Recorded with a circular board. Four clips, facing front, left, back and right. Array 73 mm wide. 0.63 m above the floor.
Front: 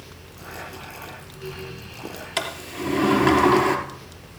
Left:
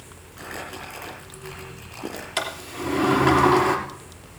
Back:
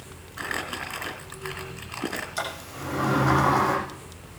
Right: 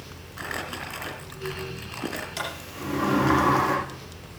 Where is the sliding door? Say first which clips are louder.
Left 4 dB, front 3 dB; 25° left, 2.5 m.